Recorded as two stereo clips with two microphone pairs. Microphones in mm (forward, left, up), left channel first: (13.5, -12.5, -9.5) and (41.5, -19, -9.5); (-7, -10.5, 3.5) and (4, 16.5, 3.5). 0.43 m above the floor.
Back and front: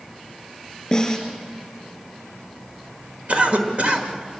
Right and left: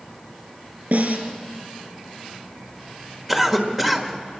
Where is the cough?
5° right, 1.7 m.